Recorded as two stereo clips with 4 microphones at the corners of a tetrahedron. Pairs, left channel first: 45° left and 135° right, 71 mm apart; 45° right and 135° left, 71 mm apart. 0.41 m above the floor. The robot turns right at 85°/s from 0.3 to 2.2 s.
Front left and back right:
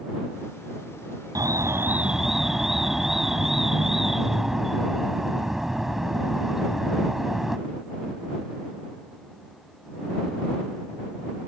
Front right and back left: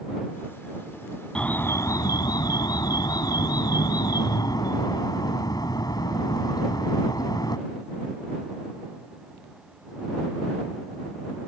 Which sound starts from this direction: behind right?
An alarm, at 1.4 s.